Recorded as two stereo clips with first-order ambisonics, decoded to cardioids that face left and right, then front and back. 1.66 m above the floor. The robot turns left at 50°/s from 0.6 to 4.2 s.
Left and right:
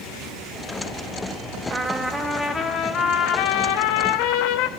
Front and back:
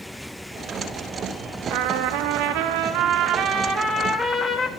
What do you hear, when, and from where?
1.7 s a trumpet: 150° right, 0.6 m; by 4.7 s 85° left, 0.6 m